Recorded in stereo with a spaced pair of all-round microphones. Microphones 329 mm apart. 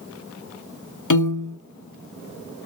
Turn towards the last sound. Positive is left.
turn(degrees=65)  # may be behind; listen again after turning